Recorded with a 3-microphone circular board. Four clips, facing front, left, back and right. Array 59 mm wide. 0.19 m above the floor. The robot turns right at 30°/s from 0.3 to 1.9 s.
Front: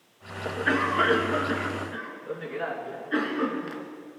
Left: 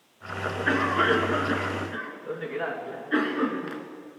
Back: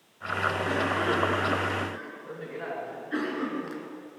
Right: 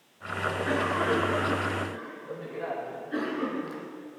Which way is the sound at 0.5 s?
30° left.